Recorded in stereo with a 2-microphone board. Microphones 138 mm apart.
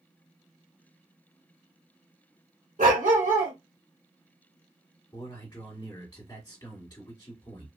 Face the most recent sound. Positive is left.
turn(degrees=25)  # may be behind; listen again after turning